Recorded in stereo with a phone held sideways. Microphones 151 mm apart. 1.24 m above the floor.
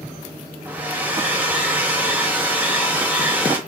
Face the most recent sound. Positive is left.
turn(degrees=-10)  # may be behind; listen again after turning